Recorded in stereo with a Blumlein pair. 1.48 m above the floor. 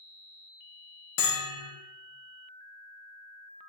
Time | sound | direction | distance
1.2 | a bell | 45° left | 0.8 m